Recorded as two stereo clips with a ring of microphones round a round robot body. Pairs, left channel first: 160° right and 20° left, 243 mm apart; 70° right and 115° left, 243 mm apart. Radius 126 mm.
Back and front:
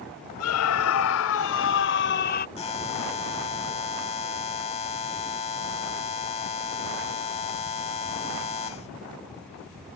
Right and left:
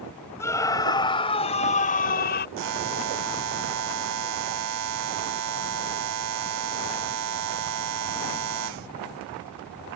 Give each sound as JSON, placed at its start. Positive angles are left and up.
{"t": 0.4, "sound": "a scream", "azimuth_deg": -145}
{"t": 2.6, "sound": "a buzzer", "azimuth_deg": 135}